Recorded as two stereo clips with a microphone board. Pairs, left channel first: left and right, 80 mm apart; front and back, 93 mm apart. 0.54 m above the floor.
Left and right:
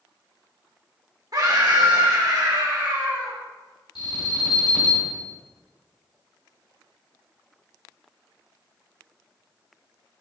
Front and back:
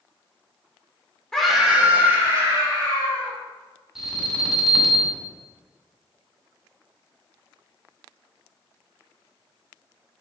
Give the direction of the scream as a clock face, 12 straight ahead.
3 o'clock.